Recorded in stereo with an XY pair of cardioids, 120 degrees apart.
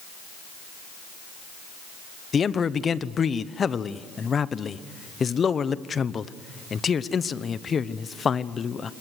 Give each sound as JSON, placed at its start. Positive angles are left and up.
{"t": 2.3, "sound": "a man speaking", "azimuth_deg": 35, "distance_m": 0.9}